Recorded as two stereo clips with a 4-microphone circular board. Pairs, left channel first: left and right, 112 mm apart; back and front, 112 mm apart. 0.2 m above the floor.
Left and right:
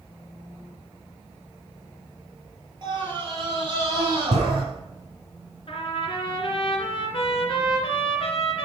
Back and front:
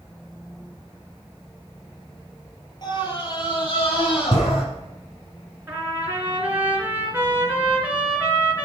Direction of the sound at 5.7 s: 70° left.